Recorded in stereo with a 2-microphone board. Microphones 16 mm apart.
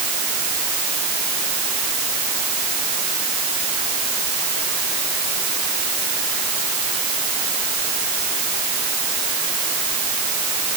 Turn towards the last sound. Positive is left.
No sound to turn to.